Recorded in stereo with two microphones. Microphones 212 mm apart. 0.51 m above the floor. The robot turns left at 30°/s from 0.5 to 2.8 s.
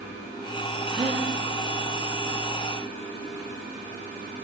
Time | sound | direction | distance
0.9 | a gasp | 15° right (ahead or behind) | 5 m